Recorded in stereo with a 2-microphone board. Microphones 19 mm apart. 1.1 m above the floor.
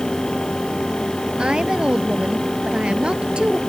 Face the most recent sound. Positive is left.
turn(degrees=-50)  # may be behind; listen again after turning